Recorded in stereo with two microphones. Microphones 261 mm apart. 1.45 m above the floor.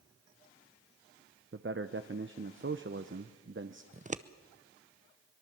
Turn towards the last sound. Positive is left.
turn(degrees=-30)  # may be behind; listen again after turning